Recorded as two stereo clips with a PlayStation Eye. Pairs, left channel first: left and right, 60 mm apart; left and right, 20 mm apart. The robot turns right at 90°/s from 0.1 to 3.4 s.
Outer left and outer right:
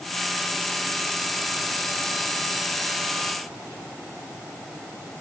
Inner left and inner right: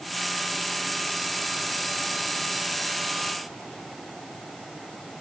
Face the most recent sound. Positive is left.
No sound to turn to.